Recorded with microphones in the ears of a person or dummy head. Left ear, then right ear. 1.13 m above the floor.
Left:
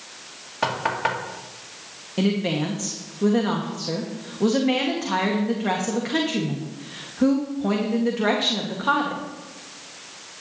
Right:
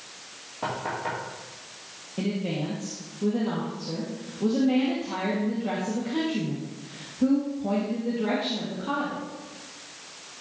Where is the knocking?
60° left (ahead or behind), 2 m.